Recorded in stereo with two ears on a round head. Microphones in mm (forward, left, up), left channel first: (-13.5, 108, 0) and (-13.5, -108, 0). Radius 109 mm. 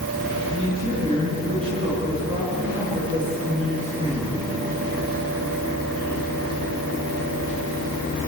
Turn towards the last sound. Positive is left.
turn(degrees=-20)  # may be behind; listen again after turning